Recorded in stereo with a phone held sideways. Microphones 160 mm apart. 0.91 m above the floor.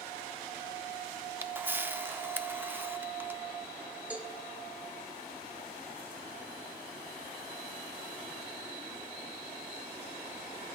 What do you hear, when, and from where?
1.4 s a camera shutter: 15° right (ahead or behind), 0.5 m
4.1 s a cowbell: 10° right (ahead or behind), 1.3 m